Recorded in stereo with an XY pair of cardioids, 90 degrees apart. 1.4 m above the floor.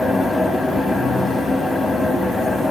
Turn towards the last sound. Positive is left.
turn(degrees=20)